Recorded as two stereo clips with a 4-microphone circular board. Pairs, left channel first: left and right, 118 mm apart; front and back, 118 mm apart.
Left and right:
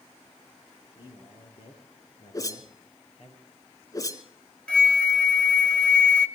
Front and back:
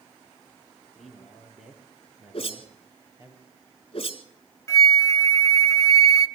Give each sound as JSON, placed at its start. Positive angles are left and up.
{"t": 0.9, "sound": "a man speaking", "azimuth_deg": 85, "distance_m": 5.5}
{"t": 2.3, "sound": "a whoosh", "azimuth_deg": 35, "distance_m": 1.4}
{"t": 4.7, "sound": "a flute", "azimuth_deg": 20, "distance_m": 0.8}